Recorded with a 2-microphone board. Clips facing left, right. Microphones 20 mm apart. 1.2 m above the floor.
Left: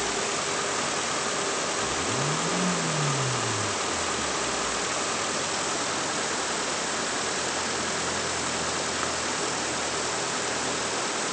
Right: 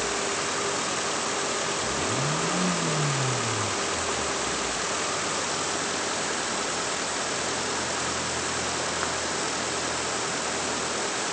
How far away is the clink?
No clink in this recording.